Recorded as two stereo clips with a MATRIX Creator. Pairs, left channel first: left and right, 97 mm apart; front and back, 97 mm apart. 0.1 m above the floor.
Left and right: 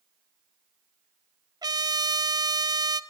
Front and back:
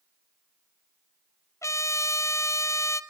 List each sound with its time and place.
1.6 s a trumpet: 50° right, 0.7 m